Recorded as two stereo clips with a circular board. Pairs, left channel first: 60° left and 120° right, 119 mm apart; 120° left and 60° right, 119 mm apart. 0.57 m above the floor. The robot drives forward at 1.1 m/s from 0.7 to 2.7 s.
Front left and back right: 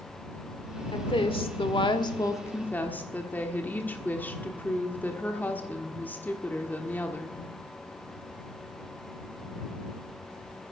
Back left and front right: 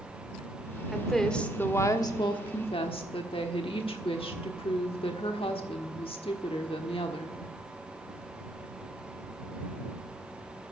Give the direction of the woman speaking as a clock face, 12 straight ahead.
11 o'clock.